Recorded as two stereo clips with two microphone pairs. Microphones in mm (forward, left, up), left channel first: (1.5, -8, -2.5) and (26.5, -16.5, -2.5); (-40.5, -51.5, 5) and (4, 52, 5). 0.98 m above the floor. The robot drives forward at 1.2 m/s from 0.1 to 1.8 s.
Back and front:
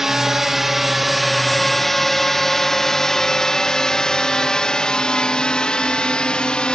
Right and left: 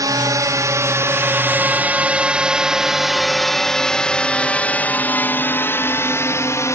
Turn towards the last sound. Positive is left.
turn(degrees=-165)